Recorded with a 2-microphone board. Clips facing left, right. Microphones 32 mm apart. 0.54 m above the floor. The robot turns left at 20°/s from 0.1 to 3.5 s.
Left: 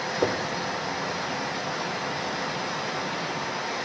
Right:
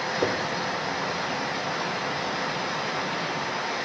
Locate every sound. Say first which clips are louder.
0.2 s knocking: left 1 dB; 20° left (ahead or behind), 0.9 m; by 0.4 s 15° left (ahead or behind), 0.9 m